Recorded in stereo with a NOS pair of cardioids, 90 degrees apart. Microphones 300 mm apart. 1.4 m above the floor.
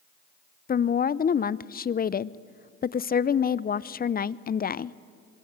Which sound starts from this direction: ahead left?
A woman speaking, at 0.7 s.